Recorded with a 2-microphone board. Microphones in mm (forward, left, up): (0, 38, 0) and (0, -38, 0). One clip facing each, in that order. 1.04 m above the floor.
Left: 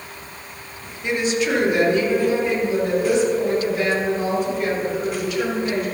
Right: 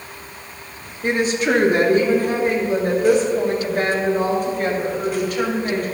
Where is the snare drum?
I don't hear a snare drum.